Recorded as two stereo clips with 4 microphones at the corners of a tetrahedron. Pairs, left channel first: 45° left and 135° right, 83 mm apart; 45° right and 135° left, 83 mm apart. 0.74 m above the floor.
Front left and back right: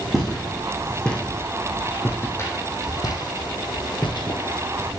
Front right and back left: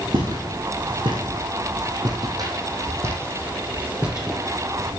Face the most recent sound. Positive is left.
turn(degrees=40)